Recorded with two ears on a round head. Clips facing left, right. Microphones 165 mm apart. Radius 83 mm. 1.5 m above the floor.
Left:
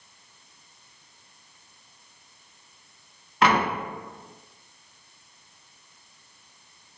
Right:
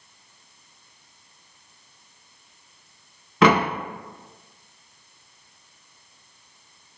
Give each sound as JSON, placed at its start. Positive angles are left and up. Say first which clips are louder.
{"t": 3.4, "sound": "a door slam", "louder": "right 4 dB", "side_deg": -65, "distance_m": 0.7}